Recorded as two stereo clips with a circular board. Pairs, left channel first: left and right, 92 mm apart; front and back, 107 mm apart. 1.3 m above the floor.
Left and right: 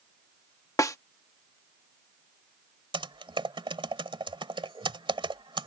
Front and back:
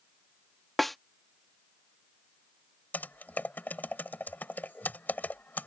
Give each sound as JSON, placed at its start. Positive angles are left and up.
{"t": 0.8, "sound": "a snare drum", "azimuth_deg": 85}
{"t": 2.9, "sound": "typing on a keyboard", "azimuth_deg": -75}